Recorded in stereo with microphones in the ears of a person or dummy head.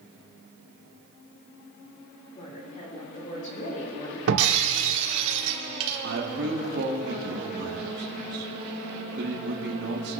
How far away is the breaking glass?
About 1.7 m.